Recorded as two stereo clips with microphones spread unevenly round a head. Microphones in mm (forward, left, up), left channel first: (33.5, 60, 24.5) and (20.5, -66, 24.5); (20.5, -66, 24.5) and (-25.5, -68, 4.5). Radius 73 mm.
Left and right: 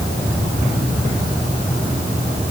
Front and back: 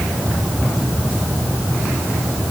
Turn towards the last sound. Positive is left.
No sound to turn to.